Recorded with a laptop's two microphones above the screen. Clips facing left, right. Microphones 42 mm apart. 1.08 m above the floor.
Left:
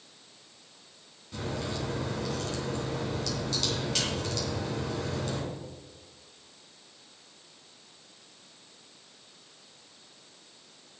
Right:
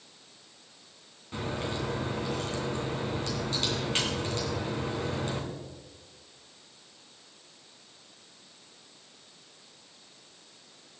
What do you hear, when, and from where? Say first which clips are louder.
1.3 s a crack: right 1 dB; 35° right (ahead or behind), 2.5 m